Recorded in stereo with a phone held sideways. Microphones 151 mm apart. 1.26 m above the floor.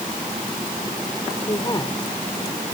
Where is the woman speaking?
25° left (ahead or behind).